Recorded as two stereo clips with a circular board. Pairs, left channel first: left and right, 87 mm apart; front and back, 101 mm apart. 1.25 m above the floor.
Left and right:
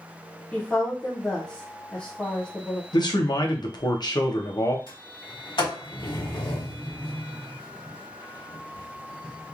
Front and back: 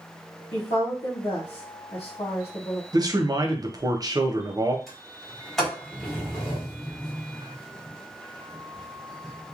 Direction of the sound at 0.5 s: 15° left.